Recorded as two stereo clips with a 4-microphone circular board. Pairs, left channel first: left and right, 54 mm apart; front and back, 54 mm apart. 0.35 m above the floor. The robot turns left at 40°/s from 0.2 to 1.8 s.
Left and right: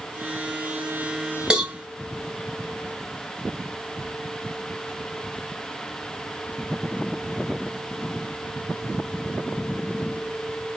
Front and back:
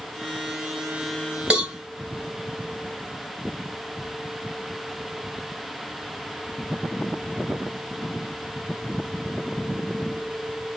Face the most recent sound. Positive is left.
turn(degrees=-150)